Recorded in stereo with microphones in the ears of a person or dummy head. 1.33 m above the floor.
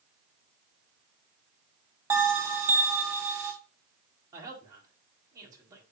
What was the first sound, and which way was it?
A bell, 10° right (ahead or behind).